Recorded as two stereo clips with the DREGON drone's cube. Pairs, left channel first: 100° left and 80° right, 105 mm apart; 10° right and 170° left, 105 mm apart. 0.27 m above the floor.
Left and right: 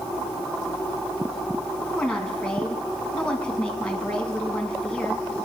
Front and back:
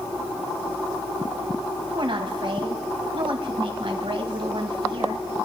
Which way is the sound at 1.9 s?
Straight behind.